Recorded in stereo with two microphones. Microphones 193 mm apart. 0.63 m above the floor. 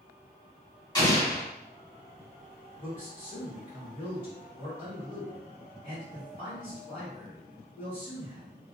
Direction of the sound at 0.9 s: 25° left (ahead or behind).